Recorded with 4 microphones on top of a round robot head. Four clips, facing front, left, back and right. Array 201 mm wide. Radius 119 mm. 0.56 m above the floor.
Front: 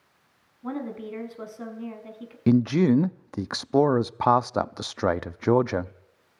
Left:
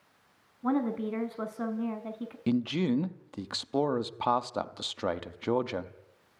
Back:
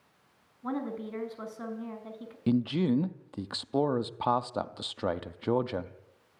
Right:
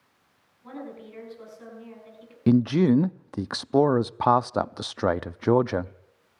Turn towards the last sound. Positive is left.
turn(degrees=-45)